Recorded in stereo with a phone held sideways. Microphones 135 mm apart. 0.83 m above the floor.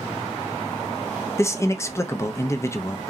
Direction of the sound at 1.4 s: 20° left (ahead or behind).